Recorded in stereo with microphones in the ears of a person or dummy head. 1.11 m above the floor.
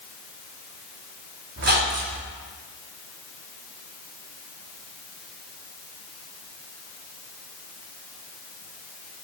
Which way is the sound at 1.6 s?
40° right (ahead or behind).